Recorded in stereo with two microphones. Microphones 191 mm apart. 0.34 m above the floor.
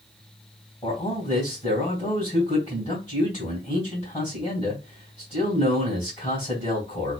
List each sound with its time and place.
0.8 s a man speaking: 30° left (ahead or behind), 2.5 m